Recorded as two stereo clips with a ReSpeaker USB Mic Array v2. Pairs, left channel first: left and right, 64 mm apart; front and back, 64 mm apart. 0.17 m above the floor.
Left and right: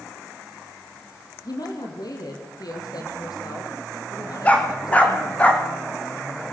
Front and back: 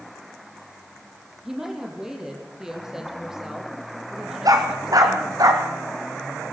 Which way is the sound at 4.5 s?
160° left.